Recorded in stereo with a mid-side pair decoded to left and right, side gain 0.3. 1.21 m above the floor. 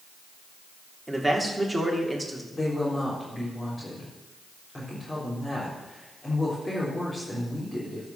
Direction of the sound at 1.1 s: 10° right.